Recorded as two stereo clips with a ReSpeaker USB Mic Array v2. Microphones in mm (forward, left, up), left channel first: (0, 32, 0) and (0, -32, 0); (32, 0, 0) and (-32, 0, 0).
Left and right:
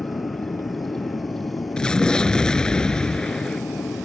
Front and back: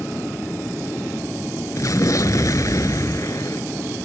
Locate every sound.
0.0 s an aircraft: 65° left
1.8 s an explosion: 15° left